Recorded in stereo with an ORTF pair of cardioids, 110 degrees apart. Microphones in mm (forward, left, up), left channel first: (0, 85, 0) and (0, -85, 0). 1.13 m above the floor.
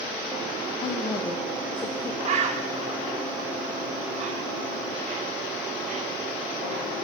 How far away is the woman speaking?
About 1.0 m.